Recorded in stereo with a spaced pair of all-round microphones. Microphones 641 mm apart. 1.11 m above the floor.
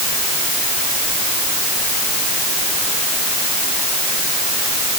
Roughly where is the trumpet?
No trumpet in this recording.